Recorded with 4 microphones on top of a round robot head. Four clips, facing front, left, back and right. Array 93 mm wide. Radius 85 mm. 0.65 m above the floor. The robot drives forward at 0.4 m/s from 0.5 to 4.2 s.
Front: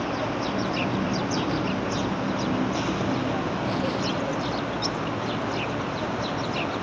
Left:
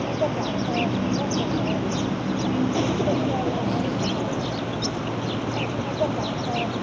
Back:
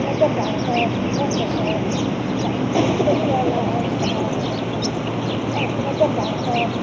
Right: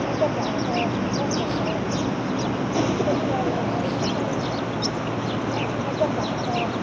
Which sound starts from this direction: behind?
An insect, at 0.0 s.